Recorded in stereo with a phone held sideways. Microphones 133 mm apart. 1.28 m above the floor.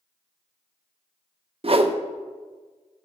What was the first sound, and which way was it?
A whoosh, 45° right (ahead or behind).